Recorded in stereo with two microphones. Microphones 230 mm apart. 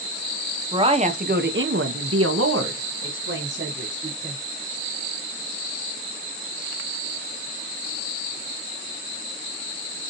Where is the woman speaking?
20° right (ahead or behind), 0.8 m; by 4.4 s 50° right (ahead or behind), 1.7 m.